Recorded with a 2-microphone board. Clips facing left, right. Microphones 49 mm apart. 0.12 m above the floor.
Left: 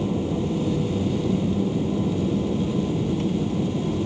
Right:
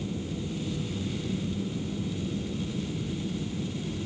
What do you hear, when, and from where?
0.0 s an aircraft: 55° left (ahead or behind)